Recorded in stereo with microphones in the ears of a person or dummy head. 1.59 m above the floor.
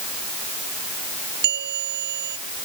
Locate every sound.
1.4 s a bell: 50° right (ahead or behind)